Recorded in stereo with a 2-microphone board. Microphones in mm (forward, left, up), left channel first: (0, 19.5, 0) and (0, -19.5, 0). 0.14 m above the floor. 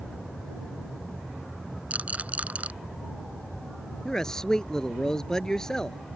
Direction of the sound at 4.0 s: 15° left (ahead or behind).